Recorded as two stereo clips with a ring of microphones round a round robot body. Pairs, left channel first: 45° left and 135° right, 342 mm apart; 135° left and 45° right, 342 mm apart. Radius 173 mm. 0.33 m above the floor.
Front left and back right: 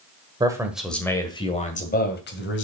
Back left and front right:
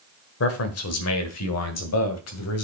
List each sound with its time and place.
0.4 s a man speaking: 155° left, 1.6 m; by 2.6 s 95° left, 2.5 m